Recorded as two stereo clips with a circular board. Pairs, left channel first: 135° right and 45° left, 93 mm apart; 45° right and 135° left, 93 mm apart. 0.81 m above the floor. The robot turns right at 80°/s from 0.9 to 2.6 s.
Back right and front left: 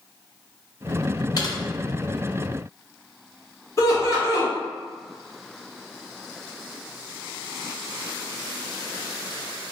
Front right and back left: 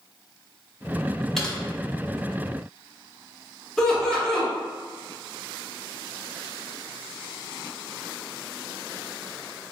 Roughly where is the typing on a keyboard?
Behind right.